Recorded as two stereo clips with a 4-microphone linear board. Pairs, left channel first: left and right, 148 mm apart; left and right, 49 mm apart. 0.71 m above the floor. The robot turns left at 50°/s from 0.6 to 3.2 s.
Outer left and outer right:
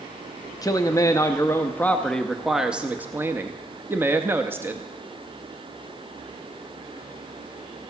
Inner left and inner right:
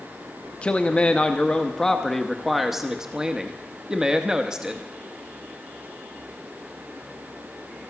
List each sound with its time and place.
0.6 s a man speaking: 25° left (ahead or behind), 0.8 m; by 4.8 s 15° right (ahead or behind), 0.8 m